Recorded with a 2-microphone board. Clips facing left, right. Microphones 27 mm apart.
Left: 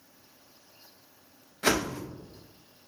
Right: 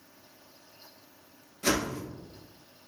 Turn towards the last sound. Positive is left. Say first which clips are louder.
# left 2 dB
turn(degrees=75)  # may be behind; listen again after turning